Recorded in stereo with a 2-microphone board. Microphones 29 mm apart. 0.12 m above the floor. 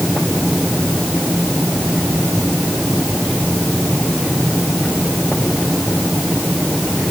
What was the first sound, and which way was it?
Only background noise.